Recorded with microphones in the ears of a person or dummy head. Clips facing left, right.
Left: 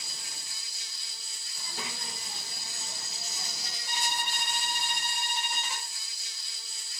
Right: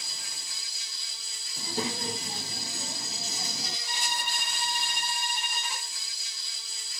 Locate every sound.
0.0 s an insect: 65° right (ahead or behind), 1.9 m
1.6 s a child speaking: 35° right (ahead or behind), 1.0 m
3.9 s a violin: 85° left, 9 m